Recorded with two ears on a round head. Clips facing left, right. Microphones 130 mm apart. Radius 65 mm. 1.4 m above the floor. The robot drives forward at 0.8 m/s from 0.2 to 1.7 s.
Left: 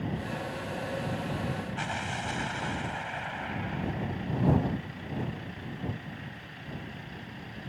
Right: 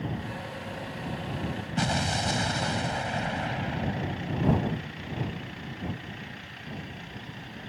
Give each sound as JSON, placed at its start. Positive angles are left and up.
{"t": 1.8, "sound": "an explosion", "side_deg": -45}